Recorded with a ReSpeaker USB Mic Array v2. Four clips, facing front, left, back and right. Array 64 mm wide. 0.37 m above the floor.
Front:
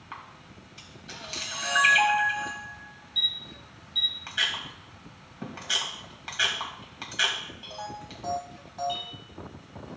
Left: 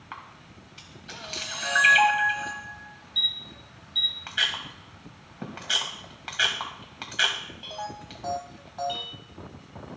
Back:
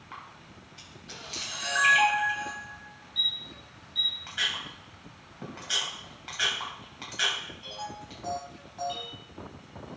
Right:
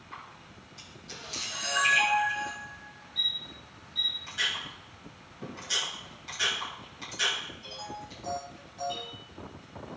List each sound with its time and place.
0.1 s a camera shutter: 75° left, 2.5 m